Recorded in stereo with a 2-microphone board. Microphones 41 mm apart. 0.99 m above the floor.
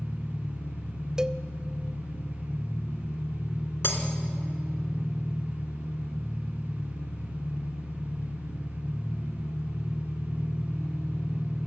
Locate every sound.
0.0 s an engine running: 75° left (ahead or behind), 3 m
1.2 s a cowbell: 20° right (ahead or behind), 0.5 m
3.8 s breaking glass: 60° left (ahead or behind), 2.5 m